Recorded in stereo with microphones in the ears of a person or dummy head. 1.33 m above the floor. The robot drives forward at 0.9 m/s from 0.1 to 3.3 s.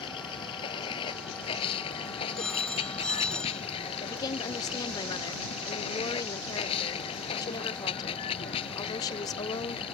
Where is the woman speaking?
20° left (ahead or behind).